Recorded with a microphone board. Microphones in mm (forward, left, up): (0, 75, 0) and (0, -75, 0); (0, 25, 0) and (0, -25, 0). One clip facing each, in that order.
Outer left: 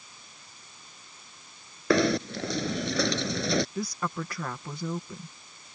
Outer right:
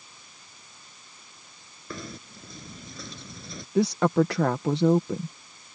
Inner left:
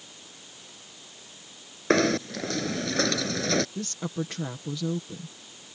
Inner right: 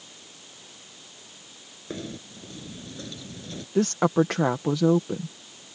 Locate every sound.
1.9 s knocking: 85° left
3.8 s a woman speaking: 85° right